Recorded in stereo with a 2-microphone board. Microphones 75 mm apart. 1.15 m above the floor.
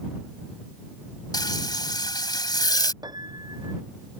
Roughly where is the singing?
No singing in this recording.